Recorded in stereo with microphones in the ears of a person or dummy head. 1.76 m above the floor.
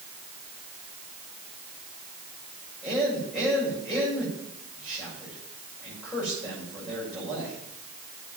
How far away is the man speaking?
About 7.5 m.